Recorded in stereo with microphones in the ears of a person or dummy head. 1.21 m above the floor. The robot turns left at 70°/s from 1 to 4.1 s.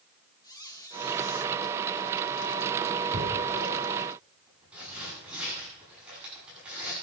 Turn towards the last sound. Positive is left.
turn(degrees=-5)  # may be behind; listen again after turning